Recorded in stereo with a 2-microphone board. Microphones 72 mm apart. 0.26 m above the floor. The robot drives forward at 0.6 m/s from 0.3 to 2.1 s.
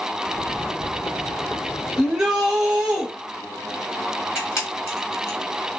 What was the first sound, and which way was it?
A shout, 10° right (ahead or behind).